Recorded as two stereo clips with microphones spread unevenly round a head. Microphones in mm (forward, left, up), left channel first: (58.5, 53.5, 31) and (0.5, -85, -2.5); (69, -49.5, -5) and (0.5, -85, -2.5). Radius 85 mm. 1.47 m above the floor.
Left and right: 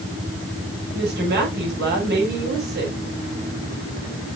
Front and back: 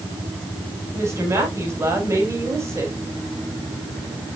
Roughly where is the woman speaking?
Right.